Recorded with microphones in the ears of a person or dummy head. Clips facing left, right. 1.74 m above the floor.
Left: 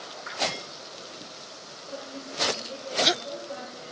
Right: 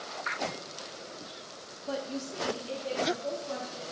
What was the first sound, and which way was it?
A woman speaking, 85° right.